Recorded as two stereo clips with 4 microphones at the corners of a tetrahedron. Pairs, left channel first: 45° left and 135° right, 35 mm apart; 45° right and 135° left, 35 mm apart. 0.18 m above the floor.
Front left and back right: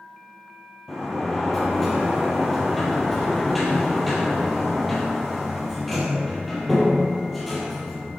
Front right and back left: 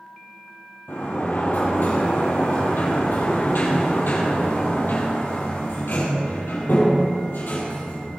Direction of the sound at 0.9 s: 40° right.